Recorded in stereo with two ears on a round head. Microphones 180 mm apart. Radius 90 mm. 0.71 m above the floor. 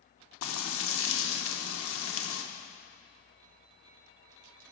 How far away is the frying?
About 0.9 m.